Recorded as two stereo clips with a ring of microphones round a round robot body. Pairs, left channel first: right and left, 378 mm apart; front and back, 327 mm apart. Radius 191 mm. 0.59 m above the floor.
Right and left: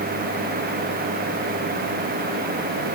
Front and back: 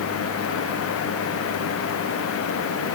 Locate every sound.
Only background noise.